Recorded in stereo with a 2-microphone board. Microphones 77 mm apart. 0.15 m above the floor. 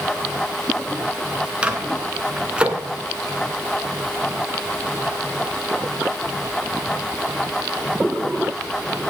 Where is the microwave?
15° right (ahead or behind), 1.7 m.